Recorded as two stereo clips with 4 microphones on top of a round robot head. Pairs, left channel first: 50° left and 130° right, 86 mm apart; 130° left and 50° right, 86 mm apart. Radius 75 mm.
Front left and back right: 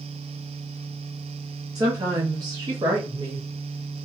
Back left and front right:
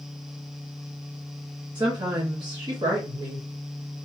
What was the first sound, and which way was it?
A woman speaking, 85° right.